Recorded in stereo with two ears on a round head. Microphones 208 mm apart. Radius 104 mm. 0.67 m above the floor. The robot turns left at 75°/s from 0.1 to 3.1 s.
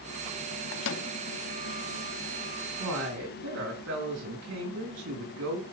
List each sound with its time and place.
0.7 s a microwave: 50° left (ahead or behind), 0.7 m; by 1.1 s 55° left (ahead or behind), 0.7 m
2.8 s a woman speaking: 80° right, 7.5 m; by 5.6 s 70° right (ahead or behind), 7.5 m